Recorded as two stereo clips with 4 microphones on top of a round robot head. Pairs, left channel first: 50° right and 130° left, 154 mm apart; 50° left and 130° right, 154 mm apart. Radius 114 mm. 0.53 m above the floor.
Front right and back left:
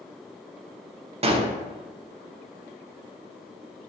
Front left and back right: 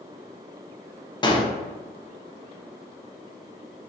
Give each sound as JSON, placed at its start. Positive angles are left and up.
{"t": 1.2, "sound": "a gunshot", "azimuth_deg": 100, "distance_m": 0.6}